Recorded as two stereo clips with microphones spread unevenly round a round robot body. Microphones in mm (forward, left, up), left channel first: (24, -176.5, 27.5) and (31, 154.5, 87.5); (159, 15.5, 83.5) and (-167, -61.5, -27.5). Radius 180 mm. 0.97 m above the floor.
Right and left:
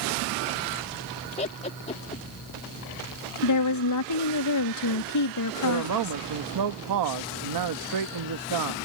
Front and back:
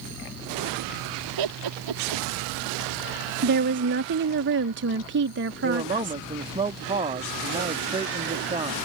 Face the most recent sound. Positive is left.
turn(degrees=125)